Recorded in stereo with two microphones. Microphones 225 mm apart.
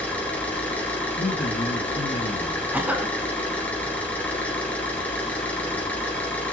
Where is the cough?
10° right (ahead or behind), 1.1 m.